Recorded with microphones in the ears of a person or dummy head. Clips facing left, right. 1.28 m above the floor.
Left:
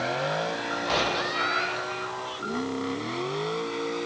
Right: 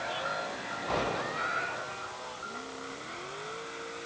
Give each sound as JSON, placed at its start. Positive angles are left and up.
{"t": 0.0, "sound": "a vehicle", "side_deg": 70}
{"t": 1.3, "sound": "a cat meowing", "side_deg": 70}